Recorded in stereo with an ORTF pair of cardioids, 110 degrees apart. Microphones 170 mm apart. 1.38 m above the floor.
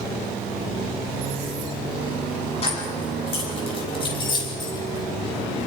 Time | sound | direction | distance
2.6 | keys jangling | 35° left | 8 m